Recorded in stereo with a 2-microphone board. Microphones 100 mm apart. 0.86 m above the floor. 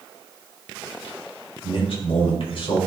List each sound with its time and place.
1.6 s a man speaking: 60° left (ahead or behind), 4 m